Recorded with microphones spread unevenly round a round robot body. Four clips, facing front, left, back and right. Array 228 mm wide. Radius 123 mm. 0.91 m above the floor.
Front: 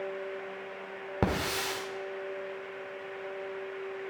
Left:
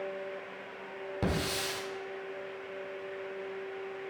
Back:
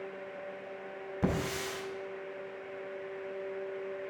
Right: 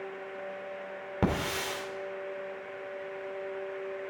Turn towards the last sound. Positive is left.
turn(degrees=-20)